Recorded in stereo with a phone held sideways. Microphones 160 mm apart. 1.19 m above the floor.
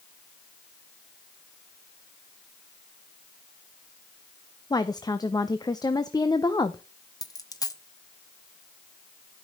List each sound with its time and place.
4.7 s a woman speaking: 25° left (ahead or behind), 0.6 m
7.2 s a dropped coin: 20° left (ahead or behind), 0.8 m